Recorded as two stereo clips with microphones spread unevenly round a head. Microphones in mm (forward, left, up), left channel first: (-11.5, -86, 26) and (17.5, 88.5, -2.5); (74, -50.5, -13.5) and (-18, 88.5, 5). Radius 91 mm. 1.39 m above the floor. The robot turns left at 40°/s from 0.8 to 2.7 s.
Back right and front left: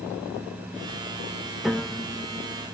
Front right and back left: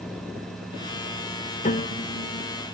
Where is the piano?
15° right, 0.7 m; by 2.5 s 45° right, 0.7 m.